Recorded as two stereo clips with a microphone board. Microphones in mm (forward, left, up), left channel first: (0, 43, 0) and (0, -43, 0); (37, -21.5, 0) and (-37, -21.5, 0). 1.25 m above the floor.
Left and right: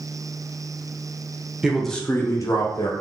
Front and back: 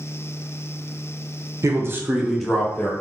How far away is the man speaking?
About 0.6 m.